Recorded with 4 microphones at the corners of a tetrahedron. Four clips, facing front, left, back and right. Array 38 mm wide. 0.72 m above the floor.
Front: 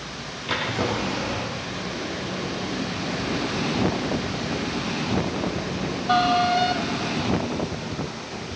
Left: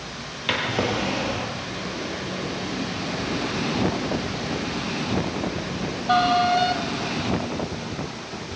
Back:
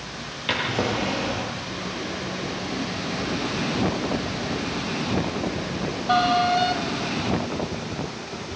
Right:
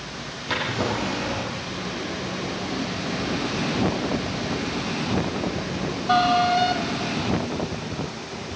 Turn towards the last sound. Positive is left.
turn(degrees=120)